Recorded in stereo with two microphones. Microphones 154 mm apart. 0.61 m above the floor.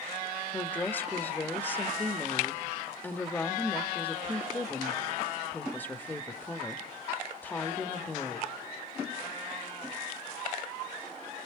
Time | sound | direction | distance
0.5 | a woman speaking | 10° left (ahead or behind) | 1.3 m